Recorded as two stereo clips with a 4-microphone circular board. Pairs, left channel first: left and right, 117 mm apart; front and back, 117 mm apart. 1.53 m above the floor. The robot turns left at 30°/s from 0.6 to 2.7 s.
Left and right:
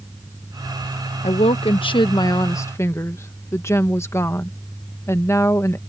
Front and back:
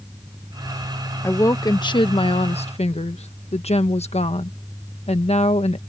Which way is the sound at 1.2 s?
70° left.